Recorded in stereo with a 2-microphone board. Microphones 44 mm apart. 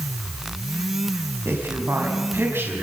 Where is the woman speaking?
85° right, 5.5 m.